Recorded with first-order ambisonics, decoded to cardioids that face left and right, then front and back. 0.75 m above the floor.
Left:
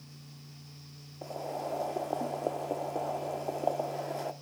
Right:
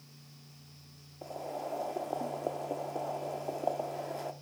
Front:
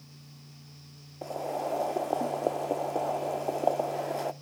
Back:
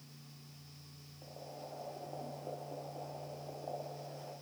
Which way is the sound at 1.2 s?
5° left.